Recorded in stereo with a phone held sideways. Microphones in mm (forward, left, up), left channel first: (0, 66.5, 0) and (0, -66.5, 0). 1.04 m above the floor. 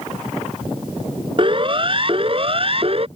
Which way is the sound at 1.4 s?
40° right (ahead or behind).